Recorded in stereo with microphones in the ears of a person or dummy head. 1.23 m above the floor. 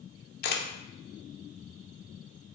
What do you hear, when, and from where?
0.4 s a camera shutter: 55° left (ahead or behind), 0.6 m